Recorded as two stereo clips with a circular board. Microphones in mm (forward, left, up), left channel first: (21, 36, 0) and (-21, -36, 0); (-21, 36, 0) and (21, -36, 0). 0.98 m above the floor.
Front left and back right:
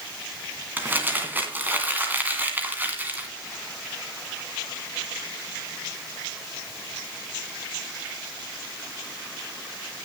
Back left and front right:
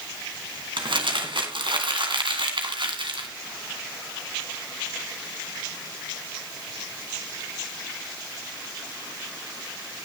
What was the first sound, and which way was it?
Crumpling, 50° right.